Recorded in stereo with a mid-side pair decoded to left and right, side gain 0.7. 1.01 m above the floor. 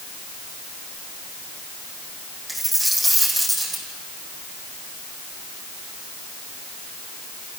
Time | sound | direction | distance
2.5 | a dropped coin | 5° right | 6.5 m